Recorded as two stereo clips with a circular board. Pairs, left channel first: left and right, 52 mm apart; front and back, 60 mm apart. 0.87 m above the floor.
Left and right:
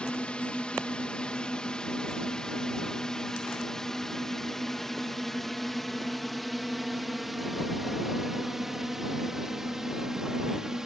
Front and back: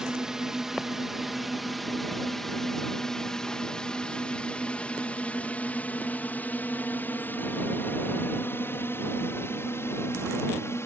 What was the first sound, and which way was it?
A drone, 115° left.